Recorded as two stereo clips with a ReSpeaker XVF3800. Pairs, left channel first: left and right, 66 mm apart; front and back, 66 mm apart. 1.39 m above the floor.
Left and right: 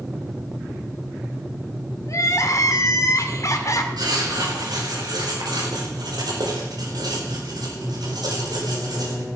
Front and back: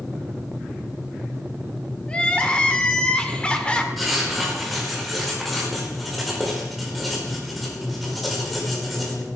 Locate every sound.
2.1 s crying: 70° left, 1.5 m
4.0 s writing: 90° right, 4.5 m